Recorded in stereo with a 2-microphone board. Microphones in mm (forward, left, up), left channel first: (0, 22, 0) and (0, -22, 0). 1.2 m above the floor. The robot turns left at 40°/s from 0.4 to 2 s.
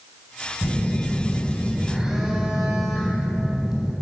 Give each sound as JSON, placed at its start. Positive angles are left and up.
{"t": 0.6, "sound": "a phone buzzing", "azimuth_deg": 45, "distance_m": 2.5}